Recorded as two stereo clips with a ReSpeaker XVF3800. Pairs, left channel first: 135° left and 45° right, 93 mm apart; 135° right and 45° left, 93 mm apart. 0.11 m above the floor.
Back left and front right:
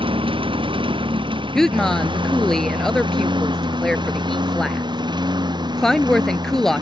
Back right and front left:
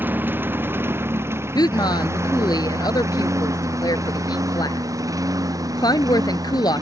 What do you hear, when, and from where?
0.0 s a lawn mower: 25° right; by 6.8 s 5° right
1.6 s a woman speaking: 140° right